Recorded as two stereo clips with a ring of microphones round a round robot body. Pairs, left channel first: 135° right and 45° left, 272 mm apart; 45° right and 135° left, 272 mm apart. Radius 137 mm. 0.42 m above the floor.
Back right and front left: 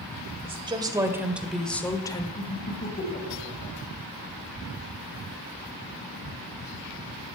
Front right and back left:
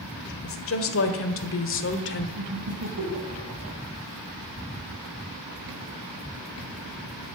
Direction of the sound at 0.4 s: 20° right.